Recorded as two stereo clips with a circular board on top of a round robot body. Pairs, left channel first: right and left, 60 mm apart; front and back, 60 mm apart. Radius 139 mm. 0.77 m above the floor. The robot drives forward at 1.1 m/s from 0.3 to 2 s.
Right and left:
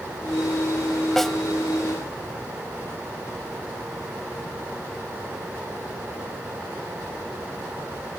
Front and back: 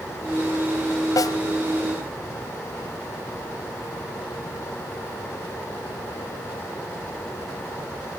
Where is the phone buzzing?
I don't hear a phone buzzing.